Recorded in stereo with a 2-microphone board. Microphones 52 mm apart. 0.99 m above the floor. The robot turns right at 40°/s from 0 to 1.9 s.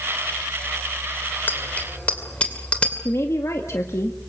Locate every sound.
1.5 s a bicycle bell: 40° left (ahead or behind), 2.5 m; by 3.0 s 25° left (ahead or behind), 2.5 m
3.0 s a woman speaking: 60° left (ahead or behind), 1.9 m